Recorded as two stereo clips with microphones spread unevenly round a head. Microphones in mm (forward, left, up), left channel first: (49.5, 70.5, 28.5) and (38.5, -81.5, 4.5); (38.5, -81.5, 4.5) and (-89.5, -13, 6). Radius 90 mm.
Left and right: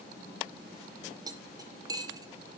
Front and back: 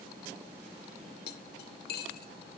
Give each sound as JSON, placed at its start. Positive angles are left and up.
{"t": 1.3, "sound": "cutlery clinking", "azimuth_deg": -25, "distance_m": 0.9}